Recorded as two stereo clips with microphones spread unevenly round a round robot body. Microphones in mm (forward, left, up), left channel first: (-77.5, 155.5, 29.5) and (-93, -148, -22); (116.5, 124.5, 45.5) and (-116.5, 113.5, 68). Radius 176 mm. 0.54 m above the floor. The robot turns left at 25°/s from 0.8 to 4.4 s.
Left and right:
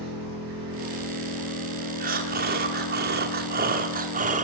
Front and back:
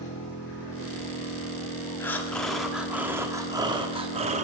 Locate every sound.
0.0 s an engine running: 60° right, 6 m; by 4.4 s 150° right, 6 m
2.0 s breathing: 65° right, 1.2 m; by 4.4 s 125° right, 1.2 m